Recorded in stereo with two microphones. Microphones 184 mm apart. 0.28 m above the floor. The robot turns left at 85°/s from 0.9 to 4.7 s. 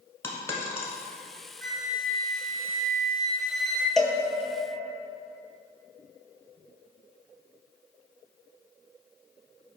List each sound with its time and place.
0.2 s a dropped coin: 15° left (ahead or behind), 1.2 m
1.6 s a flute: 75° right, 2.0 m; by 3.9 s 90° left, 2.0 m
4.0 s a cowbell: centre (ahead or behind), 0.9 m; by 4.2 s 20° right (ahead or behind), 0.9 m